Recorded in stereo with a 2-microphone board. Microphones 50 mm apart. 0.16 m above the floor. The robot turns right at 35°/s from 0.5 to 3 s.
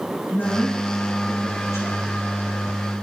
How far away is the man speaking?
About 5 m.